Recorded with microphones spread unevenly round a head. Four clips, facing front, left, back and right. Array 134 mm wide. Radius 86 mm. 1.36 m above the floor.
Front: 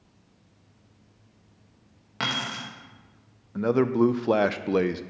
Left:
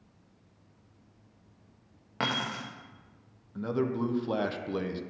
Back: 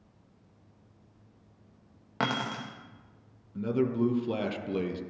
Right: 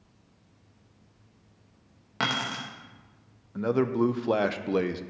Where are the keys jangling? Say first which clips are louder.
Right 2 dB, back 1 dB; 160° left, 0.7 m.